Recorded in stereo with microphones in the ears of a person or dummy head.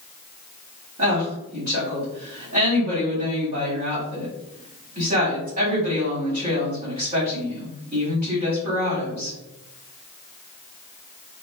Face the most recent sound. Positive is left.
turn(degrees=-40)  # may be behind; listen again after turning